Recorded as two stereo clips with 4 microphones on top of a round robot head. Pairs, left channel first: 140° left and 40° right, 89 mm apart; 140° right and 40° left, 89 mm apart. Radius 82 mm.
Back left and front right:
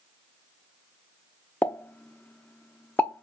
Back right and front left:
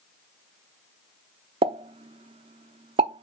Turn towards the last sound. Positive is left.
turn(degrees=70)